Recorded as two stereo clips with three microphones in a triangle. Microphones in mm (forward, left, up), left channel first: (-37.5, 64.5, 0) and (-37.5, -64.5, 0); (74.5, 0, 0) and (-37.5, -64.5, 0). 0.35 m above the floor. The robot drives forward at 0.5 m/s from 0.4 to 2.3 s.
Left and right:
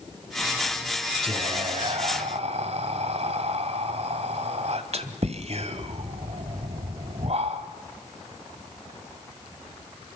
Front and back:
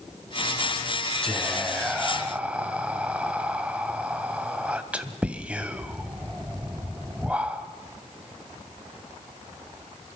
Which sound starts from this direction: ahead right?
Whispering, at 1.2 s.